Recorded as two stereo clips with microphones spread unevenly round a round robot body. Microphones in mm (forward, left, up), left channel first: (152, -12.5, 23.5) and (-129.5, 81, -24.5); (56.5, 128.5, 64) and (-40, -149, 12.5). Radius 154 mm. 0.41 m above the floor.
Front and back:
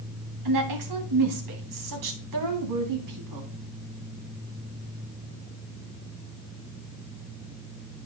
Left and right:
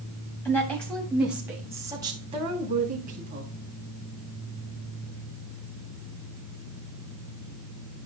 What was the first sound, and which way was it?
A woman speaking, 155° left.